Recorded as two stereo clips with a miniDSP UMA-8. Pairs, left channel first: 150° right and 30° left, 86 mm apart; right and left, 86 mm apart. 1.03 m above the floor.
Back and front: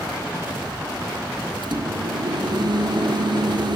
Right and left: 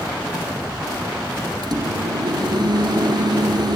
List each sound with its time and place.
1.6 s a microwave: 60° left, 2.5 m